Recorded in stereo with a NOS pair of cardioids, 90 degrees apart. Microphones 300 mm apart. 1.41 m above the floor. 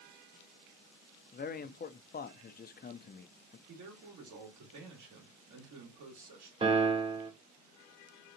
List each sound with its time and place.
1.3 s a man speaking: 30° left, 0.7 m
3.7 s a man speaking: 65° right, 2.5 m
6.6 s a piano: 15° right, 0.7 m